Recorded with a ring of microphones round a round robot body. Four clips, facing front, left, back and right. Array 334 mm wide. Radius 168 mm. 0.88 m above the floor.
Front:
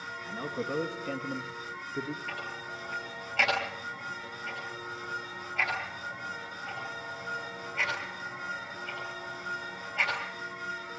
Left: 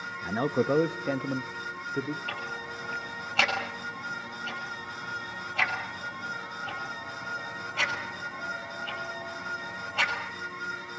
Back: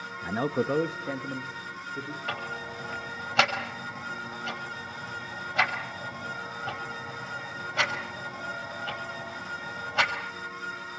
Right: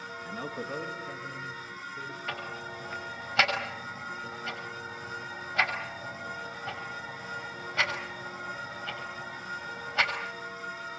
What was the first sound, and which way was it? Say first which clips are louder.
A man speaking: left 12 dB, back 8 dB; 145° left.